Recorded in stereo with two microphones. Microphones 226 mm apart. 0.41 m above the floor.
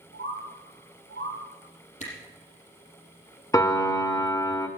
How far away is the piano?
About 1.1 m.